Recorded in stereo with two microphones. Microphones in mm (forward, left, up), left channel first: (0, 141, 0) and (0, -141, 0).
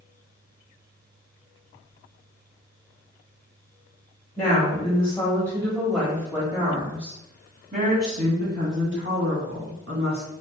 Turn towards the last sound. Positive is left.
turn(degrees=-50)  # may be behind; listen again after turning